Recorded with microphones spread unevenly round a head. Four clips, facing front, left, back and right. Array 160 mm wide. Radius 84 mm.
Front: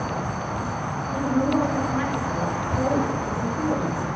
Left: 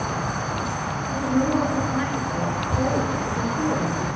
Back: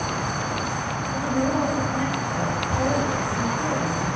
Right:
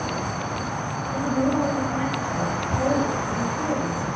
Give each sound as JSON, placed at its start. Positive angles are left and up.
{"t": 1.1, "sound": "a woman speaking", "azimuth_deg": 50, "distance_m": 4.0}